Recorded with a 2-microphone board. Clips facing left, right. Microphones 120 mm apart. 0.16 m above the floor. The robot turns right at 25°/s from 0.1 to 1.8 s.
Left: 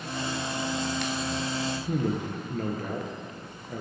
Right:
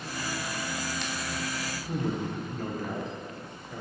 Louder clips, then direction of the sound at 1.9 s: Even; 55° left (ahead or behind).